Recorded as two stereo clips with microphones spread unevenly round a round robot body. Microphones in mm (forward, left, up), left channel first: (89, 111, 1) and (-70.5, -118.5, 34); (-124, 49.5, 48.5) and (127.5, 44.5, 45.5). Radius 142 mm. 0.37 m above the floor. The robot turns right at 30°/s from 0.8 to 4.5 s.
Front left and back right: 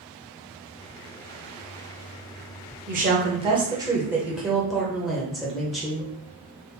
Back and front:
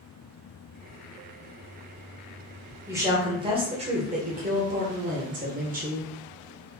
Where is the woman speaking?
75° right, 1.3 m; by 6.1 s 25° right, 1.3 m.